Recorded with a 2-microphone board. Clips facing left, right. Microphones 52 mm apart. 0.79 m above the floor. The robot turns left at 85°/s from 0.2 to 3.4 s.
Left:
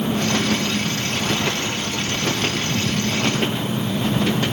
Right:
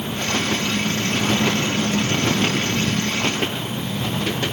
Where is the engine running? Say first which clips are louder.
Left 3 dB; 50° left; by 4.5 s 135° left.